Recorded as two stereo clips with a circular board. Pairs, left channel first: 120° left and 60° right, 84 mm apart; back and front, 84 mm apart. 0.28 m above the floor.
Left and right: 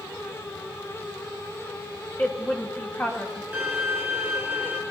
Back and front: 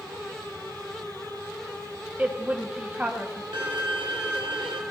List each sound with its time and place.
2.2 s a woman speaking: 60° left, 1.9 m
3.5 s a violin: 15° left, 1.6 m